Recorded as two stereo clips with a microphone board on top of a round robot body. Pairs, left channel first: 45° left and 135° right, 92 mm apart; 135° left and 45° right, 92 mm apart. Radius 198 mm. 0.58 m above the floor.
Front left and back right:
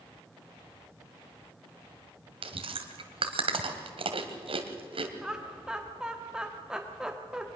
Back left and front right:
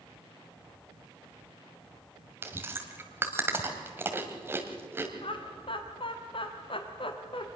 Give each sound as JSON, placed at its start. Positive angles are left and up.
{"t": 2.4, "sound": "chewing", "azimuth_deg": -110, "distance_m": 1.7}
{"t": 5.2, "sound": "laughter", "azimuth_deg": 145, "distance_m": 1.4}